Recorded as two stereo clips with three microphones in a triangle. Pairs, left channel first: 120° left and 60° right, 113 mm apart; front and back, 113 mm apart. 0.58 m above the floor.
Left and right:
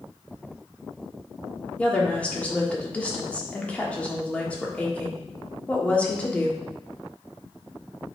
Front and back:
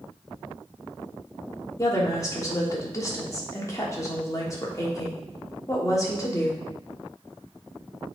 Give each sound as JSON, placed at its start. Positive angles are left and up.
{"t": 1.8, "sound": "a woman speaking", "azimuth_deg": 45, "distance_m": 1.3}